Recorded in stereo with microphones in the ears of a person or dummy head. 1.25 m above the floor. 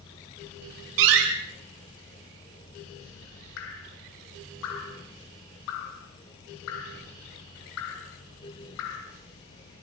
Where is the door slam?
80° right, 7 m.